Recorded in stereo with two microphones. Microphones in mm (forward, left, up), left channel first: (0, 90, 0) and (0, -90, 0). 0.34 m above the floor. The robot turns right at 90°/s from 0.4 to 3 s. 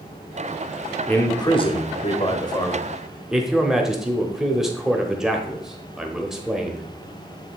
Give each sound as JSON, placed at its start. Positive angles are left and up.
{"t": 1.1, "sound": "a man speaking", "azimuth_deg": 10, "distance_m": 1.1}